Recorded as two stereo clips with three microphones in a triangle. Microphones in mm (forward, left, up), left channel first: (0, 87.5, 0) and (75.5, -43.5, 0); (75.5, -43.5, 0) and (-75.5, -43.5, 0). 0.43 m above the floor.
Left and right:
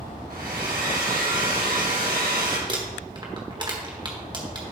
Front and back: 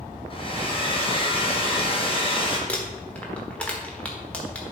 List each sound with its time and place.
0.3 s a hair dryer: 55° right, 2 m
2.7 s crumpling: 75° right, 1.5 m